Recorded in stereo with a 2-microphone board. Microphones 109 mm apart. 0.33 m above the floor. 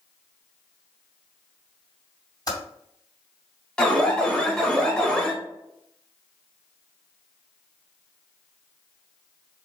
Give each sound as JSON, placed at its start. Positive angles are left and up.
{"t": 2.5, "sound": "typing on a keyboard", "side_deg": 35, "distance_m": 2.0}
{"t": 3.8, "sound": "an alarm", "side_deg": 10, "distance_m": 1.0}